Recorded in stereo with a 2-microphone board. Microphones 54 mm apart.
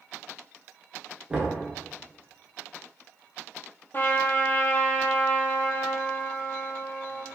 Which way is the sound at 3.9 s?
40° left (ahead or behind).